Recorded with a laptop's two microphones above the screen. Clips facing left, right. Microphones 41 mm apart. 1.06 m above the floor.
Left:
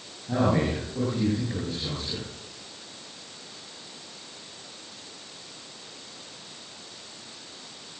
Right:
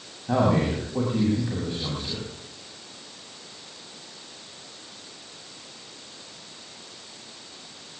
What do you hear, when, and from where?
0.3 s a man speaking: 45° right (ahead or behind), 7.5 m